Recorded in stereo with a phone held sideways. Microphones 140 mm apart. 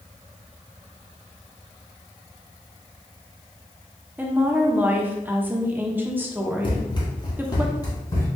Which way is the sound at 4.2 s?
15° right (ahead or behind).